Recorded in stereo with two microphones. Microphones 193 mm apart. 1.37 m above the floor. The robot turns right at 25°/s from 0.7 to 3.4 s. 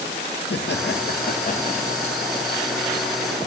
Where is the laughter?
115° left, 1.8 m; by 2.1 s 150° left, 1.8 m.